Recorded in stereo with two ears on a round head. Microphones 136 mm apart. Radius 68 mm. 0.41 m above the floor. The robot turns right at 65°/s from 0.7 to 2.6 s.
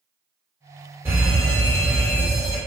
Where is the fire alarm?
15° right (ahead or behind), 1.9 m; by 2.6 s 20° left (ahead or behind), 1.9 m.